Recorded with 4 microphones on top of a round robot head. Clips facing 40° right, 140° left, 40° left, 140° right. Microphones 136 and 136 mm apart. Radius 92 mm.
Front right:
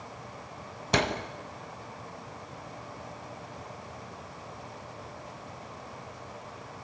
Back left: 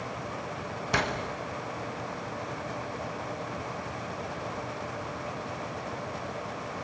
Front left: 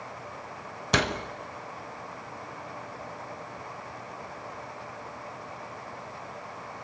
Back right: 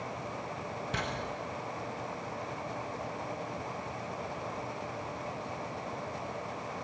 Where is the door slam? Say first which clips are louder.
Front right 3 dB, front left 11 dB; 25° left, 1.2 m.